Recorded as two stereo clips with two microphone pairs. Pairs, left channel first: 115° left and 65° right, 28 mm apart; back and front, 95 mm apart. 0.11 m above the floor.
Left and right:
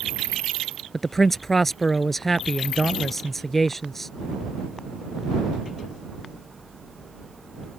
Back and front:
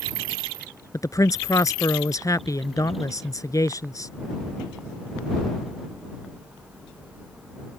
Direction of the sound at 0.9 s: 170° right.